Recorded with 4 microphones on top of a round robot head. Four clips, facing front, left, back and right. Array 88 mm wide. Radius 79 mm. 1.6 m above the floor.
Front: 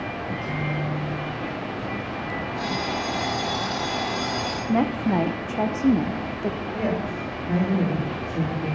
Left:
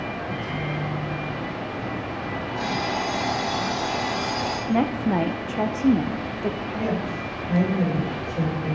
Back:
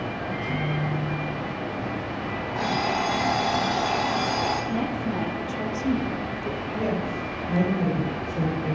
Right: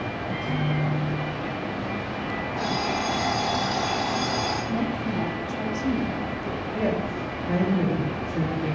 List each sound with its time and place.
0.3 s a microwave: 65° right, 2.0 m
2.5 s an alarm clock: 170° right, 0.8 m
4.7 s a woman speaking: 40° left, 0.6 m
6.7 s a woman speaking: 65° right, 4 m